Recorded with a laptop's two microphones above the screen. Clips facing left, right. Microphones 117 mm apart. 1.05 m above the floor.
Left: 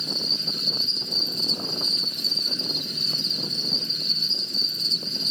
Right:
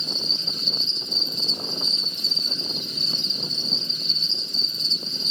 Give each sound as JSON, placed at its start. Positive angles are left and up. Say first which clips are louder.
{"t": 0.0, "sound": "an insect", "louder": "left 1 dB", "side_deg": -25, "distance_m": 1.1}